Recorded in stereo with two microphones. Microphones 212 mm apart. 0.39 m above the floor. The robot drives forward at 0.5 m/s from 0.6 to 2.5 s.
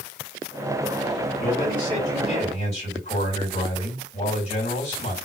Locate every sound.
1.4 s a man speaking: 40° left (ahead or behind), 1.9 m; by 5.2 s 35° left (ahead or behind), 2 m